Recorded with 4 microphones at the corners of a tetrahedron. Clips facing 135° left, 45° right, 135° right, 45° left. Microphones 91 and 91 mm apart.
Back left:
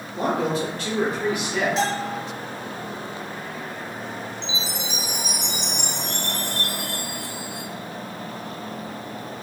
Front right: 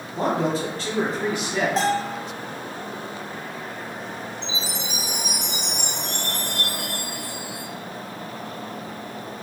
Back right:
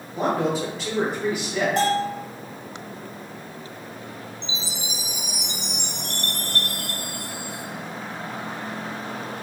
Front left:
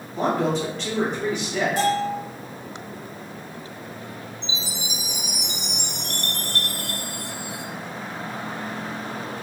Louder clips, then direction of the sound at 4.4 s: Even, front left 1 dB; 75° right.